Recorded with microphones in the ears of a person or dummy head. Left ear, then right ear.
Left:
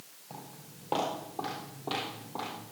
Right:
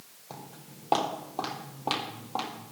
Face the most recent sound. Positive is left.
turn(degrees=-60)  # may be behind; listen again after turning